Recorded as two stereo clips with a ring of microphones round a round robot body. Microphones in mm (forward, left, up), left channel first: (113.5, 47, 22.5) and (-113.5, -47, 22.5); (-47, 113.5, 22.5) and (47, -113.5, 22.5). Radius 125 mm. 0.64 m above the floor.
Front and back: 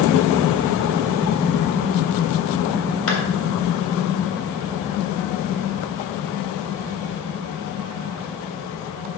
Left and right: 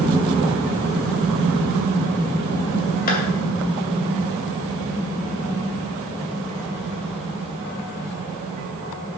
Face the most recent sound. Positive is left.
turn(degrees=60)